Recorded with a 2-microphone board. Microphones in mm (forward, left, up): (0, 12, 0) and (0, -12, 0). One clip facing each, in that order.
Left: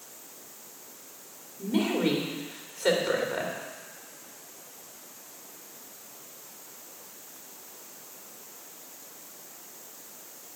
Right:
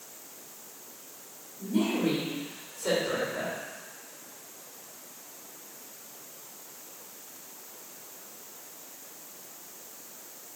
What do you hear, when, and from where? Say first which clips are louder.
1.6 s a woman speaking: left 1 dB; 50° left (ahead or behind), 2.5 m